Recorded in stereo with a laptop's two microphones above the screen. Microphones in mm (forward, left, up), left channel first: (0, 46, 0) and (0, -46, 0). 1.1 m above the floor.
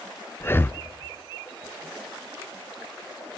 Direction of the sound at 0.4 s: 25° left (ahead or behind).